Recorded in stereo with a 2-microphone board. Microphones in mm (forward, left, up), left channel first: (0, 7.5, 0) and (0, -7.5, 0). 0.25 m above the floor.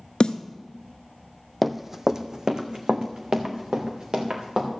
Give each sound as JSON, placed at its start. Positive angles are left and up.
{"t": 0.2, "sound": "a snare drum", "side_deg": 80, "distance_m": 0.8}
{"t": 1.6, "sound": "running footsteps", "side_deg": -5, "distance_m": 0.6}